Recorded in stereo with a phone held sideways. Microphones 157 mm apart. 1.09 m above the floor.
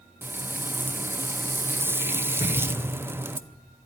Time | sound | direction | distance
0.2 | frying | 15° right (ahead or behind) | 0.5 m
2.4 | a thud | 45° left (ahead or behind) | 9 m